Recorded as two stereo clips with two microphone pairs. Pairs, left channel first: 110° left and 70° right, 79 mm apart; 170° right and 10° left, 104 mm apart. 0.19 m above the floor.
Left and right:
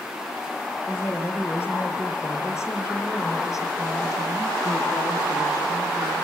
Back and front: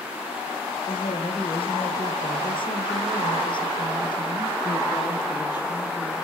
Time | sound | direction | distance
0.9 | a woman speaking | 175° left | 4.5 m